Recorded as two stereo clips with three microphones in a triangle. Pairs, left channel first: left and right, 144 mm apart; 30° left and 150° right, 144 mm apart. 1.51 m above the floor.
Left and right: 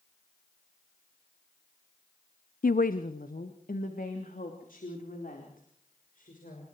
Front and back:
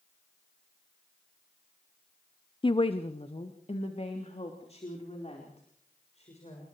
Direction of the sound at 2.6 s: 85° left.